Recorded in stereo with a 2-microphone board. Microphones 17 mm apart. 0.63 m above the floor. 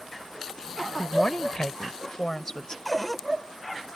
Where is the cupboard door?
5° left (ahead or behind).